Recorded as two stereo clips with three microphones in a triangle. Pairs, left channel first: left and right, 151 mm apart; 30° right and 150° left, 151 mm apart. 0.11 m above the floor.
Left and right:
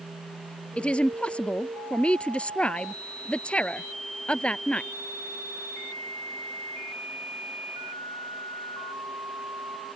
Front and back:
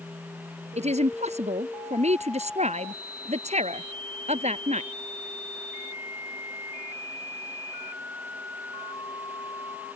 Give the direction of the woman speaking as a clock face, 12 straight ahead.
6 o'clock.